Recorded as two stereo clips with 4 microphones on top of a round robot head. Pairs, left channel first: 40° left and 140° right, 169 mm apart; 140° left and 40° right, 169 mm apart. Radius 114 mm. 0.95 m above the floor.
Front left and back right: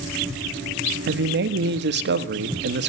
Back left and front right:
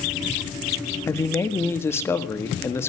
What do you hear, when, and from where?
1.1 s a man speaking: 145° right, 1.5 m